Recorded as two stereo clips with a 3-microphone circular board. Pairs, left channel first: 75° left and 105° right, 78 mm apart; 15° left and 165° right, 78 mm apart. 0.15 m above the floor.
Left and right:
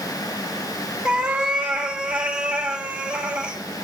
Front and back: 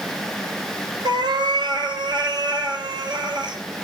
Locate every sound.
1.1 s a cat meowing: straight behind, 1.3 m